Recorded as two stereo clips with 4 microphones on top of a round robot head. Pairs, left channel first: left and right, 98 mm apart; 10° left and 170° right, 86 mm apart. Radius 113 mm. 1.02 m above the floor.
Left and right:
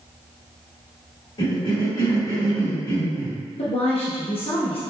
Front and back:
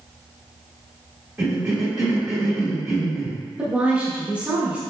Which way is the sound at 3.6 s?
115° left.